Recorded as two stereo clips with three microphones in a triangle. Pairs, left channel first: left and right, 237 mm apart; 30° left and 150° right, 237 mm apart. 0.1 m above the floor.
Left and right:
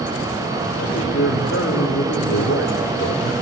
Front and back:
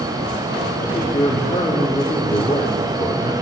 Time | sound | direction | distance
0.8 | a man speaking | 90° left | 4 m